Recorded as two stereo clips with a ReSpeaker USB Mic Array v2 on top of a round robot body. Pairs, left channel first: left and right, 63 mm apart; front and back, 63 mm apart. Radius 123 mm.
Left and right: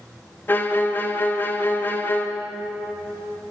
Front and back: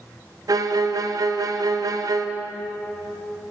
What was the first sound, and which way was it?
A violin, 150° left.